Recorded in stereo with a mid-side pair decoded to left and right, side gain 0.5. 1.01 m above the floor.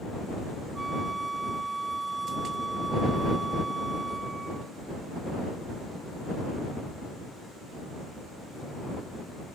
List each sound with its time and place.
0.8 s a flute: 20° right